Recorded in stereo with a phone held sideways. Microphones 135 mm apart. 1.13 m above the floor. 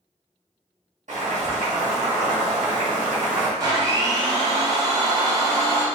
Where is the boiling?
70° right (ahead or behind), 1.5 m.